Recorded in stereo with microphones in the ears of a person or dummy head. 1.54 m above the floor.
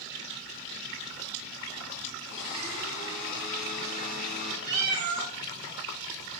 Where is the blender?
75° left (ahead or behind), 1.6 m.